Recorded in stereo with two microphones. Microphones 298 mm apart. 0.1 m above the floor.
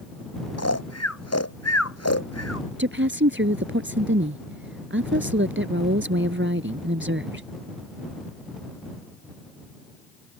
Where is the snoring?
55° left (ahead or behind).